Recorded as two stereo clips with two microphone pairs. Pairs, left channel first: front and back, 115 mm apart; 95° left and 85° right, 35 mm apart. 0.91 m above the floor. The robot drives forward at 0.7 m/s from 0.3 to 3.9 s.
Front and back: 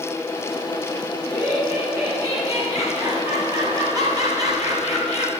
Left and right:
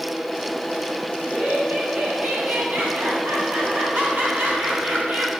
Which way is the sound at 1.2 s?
110° right.